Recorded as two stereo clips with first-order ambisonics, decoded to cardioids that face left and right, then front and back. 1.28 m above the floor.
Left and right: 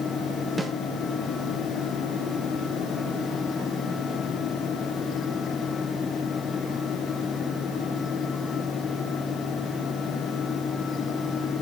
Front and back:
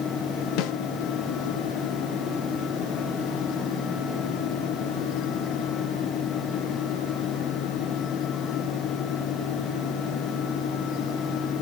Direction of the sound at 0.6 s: 10° right.